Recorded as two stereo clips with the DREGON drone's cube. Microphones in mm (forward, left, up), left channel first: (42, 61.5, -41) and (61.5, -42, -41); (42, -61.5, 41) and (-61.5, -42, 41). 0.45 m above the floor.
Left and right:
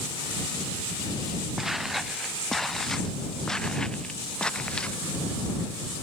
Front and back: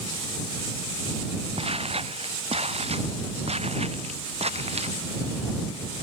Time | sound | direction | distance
1.6 | footsteps | 165° right | ?